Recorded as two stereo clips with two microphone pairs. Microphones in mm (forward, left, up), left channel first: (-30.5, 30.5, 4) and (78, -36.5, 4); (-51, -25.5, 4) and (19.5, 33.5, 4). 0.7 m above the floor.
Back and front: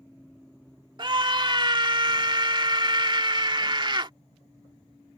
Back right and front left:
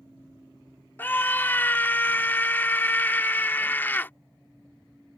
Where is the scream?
75° right.